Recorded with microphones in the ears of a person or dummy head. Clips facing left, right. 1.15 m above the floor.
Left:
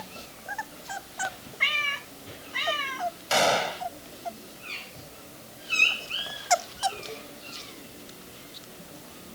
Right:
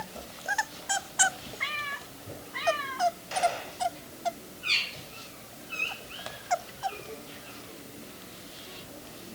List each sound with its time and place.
1.6 s a cat meowing: 35° left (ahead or behind)
3.3 s a gunshot: 75° left (ahead or behind)